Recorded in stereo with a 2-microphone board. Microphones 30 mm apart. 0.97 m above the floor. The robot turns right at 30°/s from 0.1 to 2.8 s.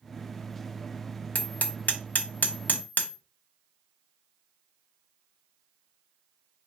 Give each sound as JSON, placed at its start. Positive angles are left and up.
{"t": 1.4, "sound": "hammering", "side_deg": 60, "distance_m": 0.8}